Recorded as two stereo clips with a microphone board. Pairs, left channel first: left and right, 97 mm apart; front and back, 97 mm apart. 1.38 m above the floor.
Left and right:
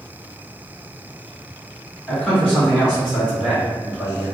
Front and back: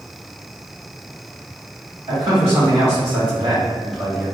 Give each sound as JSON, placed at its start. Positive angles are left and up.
{"t": 2.1, "sound": "a man speaking", "azimuth_deg": 170, "distance_m": 1.9}